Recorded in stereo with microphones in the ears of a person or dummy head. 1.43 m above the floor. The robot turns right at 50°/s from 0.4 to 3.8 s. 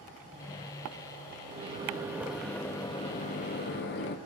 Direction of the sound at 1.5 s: 45° right.